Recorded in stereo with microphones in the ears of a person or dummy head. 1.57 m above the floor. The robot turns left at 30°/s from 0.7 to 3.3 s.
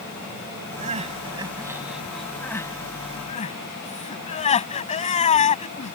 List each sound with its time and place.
0.8 s crying: 40° right (ahead or behind); by 6.0 s 30° left (ahead or behind)